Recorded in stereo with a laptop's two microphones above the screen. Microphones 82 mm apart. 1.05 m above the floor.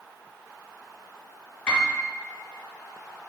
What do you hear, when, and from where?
1.7 s a piano: 20° left (ahead or behind), 1.1 m